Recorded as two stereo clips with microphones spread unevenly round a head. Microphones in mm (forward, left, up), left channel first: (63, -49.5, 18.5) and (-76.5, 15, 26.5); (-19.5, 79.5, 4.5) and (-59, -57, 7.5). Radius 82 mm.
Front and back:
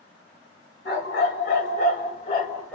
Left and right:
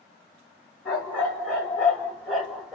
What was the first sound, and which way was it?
A dog barking, 10° right.